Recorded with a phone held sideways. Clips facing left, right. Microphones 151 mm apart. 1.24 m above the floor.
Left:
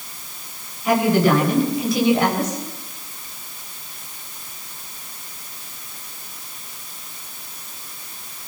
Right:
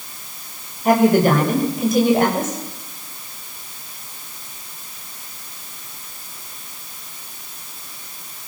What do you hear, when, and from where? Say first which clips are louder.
0.8 s a woman speaking: right 3 dB; 45° right (ahead or behind), 7 m